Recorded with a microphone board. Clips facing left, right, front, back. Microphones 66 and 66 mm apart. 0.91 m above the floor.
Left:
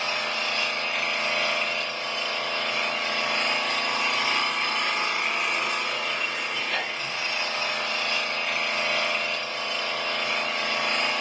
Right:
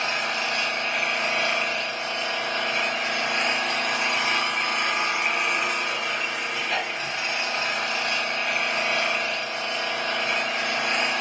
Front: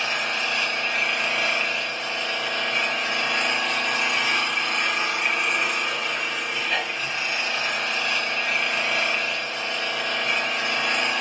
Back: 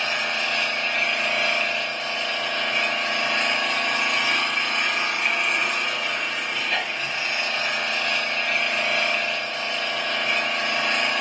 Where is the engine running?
85° right, 1.2 m.